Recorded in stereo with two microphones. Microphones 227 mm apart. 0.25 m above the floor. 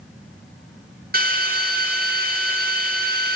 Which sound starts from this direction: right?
A drill, at 1.1 s.